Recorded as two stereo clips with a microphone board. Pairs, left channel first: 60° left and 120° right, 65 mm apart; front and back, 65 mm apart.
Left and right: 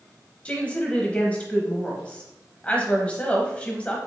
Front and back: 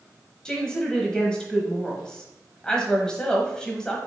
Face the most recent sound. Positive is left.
turn(degrees=50)